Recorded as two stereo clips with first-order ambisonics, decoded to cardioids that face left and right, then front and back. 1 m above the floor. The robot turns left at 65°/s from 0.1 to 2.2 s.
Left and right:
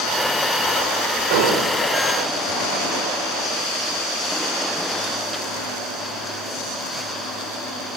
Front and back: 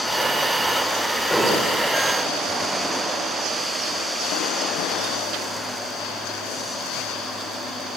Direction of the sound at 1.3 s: 90° right.